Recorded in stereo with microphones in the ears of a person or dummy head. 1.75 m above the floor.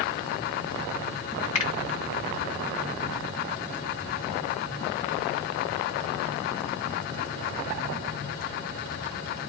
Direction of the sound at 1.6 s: 30° left (ahead or behind).